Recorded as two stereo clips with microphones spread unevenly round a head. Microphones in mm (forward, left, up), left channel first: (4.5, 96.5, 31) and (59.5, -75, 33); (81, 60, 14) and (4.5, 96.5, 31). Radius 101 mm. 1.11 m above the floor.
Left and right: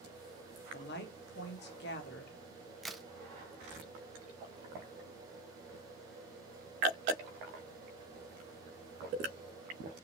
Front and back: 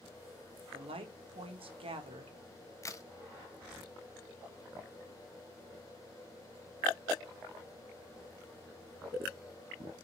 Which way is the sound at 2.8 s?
20° left.